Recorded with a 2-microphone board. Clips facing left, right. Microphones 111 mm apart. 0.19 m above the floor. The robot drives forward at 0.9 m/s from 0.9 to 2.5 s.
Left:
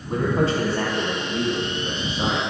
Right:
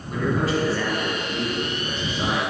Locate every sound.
0.1 s a man speaking: 35° left (ahead or behind), 1.2 m; by 2.4 s 20° left (ahead or behind), 1.8 m